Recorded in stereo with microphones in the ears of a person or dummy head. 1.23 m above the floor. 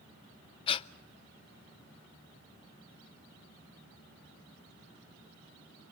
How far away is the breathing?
About 0.6 m.